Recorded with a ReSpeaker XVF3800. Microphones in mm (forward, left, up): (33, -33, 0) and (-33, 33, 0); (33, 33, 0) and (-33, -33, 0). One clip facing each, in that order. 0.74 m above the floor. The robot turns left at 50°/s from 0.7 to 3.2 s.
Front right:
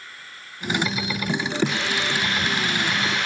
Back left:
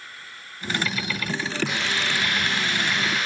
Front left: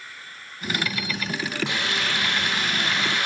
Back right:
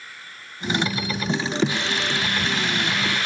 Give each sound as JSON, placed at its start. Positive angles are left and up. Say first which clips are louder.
{"t": 1.6, "sound": "a hiss", "louder": "front right 1 dB, back right 2 dB", "azimuth_deg": 50, "distance_m": 8.5}